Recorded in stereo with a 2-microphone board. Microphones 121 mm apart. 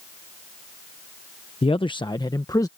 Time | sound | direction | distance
1.6 | a man speaking | 50° left (ahead or behind) | ?